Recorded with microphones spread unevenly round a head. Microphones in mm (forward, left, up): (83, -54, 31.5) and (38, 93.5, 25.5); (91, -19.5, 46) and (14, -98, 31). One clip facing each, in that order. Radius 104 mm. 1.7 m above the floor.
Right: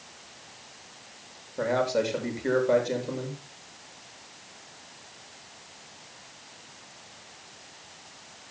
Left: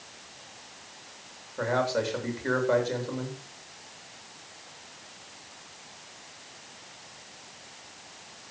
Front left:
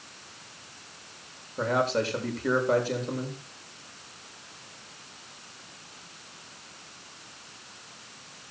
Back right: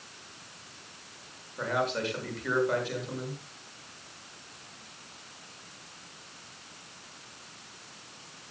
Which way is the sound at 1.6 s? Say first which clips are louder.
Right 2 dB, front left 4 dB; 5° right.